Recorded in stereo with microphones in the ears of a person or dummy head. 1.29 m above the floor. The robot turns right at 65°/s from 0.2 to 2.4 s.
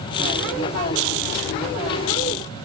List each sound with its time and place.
Only background noise.